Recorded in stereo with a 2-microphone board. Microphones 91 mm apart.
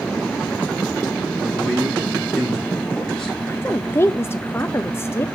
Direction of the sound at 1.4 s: 5° left (ahead or behind).